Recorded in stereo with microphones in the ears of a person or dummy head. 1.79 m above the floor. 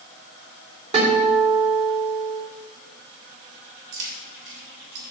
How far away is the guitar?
About 4 m.